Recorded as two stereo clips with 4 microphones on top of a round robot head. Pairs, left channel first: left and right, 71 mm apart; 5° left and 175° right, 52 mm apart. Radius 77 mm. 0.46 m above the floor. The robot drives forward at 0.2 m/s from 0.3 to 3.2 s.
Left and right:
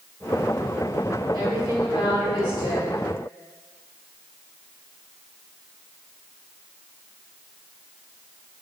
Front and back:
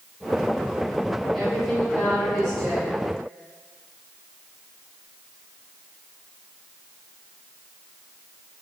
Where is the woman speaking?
75° right, 2.0 m; by 3.0 s 85° right, 1.9 m.